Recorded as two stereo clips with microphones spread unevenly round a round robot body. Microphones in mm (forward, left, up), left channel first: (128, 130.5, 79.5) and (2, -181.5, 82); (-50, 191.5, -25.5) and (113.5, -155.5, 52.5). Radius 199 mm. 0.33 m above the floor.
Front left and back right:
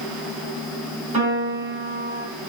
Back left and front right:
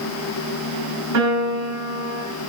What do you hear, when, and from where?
1.1 s a piano: 40° right, 2.5 m